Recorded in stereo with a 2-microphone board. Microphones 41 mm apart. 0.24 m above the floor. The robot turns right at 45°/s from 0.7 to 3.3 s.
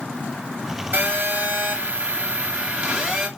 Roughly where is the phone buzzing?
Behind right.